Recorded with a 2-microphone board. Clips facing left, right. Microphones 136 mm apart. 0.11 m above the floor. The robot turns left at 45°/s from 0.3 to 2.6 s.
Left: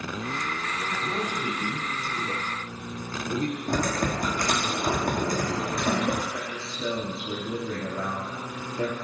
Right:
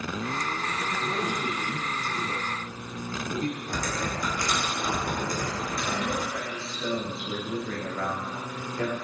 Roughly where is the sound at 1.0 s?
Centre.